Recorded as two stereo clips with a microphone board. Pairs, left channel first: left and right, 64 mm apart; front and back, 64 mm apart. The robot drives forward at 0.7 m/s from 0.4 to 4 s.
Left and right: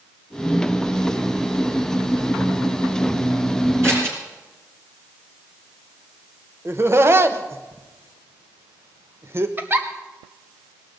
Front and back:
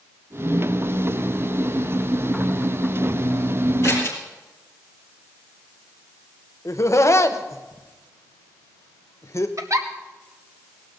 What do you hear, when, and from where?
3.8 s scissors: 50° right, 5.5 m
6.7 s laughter: 40° right, 1.0 m
9.6 s a giggle: 145° right, 1.0 m